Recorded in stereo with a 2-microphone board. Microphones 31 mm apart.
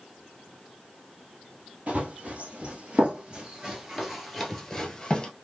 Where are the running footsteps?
55° right (ahead or behind), 1.7 m; by 5.3 s 20° left (ahead or behind), 1.3 m.